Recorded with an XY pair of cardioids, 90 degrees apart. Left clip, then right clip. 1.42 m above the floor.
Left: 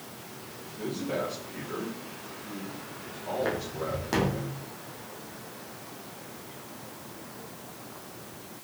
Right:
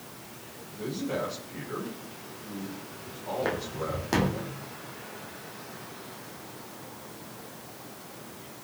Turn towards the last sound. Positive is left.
turn(degrees=-25)